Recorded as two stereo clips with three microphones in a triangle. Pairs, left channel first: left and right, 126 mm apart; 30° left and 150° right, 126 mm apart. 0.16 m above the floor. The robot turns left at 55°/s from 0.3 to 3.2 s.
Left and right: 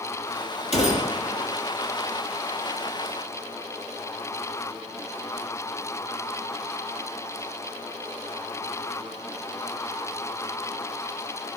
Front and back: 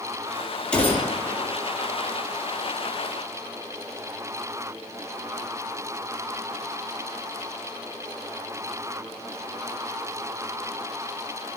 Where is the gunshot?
110° left, 5 m; by 1.5 s 65° left, 5 m.